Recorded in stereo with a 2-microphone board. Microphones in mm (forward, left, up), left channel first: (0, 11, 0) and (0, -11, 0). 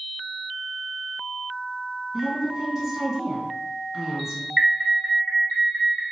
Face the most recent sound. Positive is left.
turn(degrees=-20)  # may be behind; listen again after turning